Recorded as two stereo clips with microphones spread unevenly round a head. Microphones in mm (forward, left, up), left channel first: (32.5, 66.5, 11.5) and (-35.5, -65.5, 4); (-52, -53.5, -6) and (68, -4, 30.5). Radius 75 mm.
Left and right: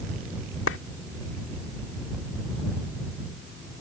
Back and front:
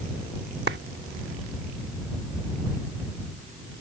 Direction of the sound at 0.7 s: 50° left.